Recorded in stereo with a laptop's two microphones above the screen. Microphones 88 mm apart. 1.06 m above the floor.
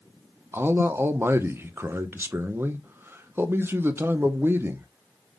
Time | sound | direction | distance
0.5 | a man speaking | 25° right (ahead or behind) | 0.5 m